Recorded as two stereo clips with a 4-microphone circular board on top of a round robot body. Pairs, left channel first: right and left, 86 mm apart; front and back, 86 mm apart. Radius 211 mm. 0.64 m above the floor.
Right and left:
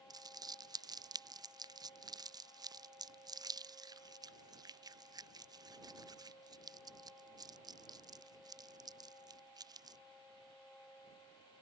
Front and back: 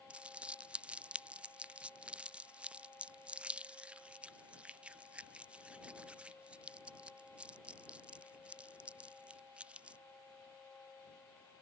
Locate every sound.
0.1 s crumpling: 105° left